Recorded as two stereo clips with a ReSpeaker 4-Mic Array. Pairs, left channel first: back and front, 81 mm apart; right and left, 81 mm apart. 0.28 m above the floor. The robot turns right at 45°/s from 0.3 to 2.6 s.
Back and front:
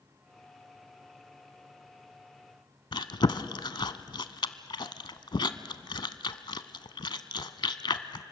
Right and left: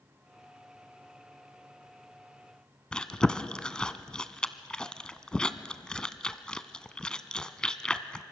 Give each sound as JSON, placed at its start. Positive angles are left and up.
{"t": 2.9, "sound": "chewing", "azimuth_deg": -170, "distance_m": 0.8}